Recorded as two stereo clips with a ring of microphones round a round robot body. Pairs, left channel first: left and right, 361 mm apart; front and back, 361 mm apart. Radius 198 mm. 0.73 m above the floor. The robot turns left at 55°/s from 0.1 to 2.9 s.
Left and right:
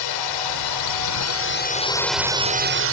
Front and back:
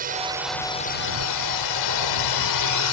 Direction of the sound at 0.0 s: 110° left.